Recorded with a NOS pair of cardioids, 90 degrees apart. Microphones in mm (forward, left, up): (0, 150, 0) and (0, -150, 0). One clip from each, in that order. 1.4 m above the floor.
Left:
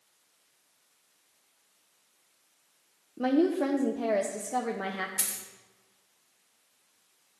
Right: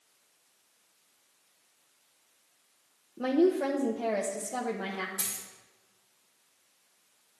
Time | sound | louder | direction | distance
3.2 | a woman speaking | even | 10° left | 0.7 m
5.2 | a dropped coin | left 2 dB | 65° left | 2.5 m